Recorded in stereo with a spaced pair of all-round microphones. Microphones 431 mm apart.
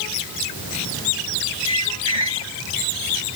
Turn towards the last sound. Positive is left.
turn(degrees=-75)  # may be behind; listen again after turning